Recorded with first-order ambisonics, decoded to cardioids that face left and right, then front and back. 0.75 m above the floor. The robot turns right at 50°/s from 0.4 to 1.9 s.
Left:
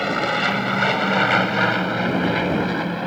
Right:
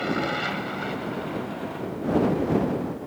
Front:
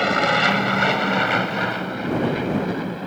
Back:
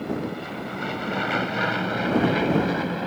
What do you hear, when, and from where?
0.0 s an aircraft: 25° left; by 3.1 s 100° left